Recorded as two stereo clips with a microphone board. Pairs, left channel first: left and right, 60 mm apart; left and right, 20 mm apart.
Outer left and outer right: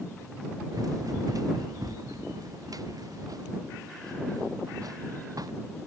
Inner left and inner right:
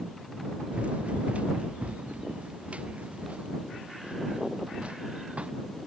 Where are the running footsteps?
80° right.